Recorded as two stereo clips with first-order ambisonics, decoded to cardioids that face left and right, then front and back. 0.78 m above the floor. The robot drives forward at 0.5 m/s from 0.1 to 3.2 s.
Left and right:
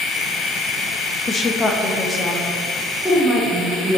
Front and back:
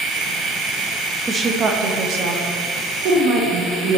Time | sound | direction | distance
1.3 | a woman speaking | 125° left | 0.5 m